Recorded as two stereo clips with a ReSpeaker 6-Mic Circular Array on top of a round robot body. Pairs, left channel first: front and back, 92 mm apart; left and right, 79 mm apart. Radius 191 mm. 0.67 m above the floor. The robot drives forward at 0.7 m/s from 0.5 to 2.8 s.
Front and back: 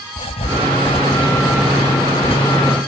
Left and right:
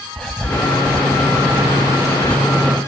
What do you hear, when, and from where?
0.2 s writing: 10° left